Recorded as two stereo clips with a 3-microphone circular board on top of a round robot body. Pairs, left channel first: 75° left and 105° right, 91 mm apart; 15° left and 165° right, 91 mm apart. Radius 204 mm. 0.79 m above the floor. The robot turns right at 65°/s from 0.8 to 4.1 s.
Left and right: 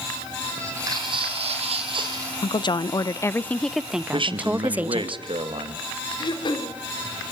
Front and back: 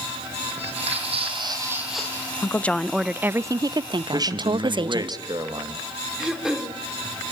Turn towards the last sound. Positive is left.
turn(degrees=110)